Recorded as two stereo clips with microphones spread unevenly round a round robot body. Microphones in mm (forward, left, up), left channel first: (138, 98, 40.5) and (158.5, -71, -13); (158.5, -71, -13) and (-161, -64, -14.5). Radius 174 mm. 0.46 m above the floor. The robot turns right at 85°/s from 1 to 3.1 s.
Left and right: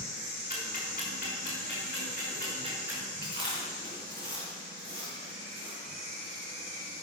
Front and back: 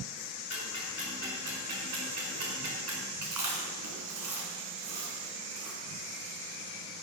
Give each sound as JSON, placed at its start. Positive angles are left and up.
{"t": 0.5, "sound": "ticking", "azimuth_deg": 55, "distance_m": 5.5}
{"t": 3.2, "sound": "chewing", "azimuth_deg": -155, "distance_m": 4.0}